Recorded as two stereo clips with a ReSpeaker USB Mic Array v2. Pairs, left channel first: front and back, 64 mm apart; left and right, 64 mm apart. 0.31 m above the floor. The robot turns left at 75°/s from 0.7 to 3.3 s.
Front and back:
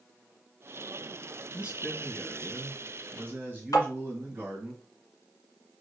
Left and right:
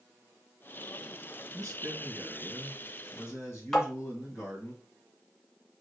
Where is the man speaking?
105° right, 1.7 m; by 4.7 s 125° left, 1.7 m.